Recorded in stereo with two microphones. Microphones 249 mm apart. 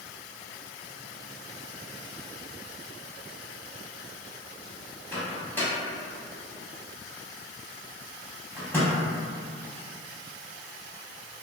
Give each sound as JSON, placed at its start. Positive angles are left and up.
{"t": 5.1, "sound": "a microwave", "side_deg": 10, "distance_m": 0.8}